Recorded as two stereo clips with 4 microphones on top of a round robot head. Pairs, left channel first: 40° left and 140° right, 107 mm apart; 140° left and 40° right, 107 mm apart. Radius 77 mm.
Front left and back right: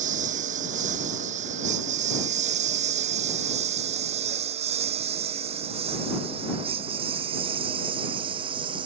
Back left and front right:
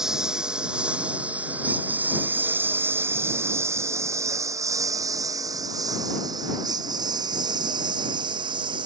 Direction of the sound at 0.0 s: 125° right.